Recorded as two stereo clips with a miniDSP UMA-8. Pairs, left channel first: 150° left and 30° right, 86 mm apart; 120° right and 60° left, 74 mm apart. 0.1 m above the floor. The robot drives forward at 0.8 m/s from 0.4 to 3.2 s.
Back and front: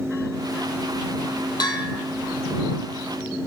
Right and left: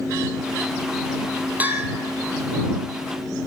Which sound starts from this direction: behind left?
A bell, at 1.6 s.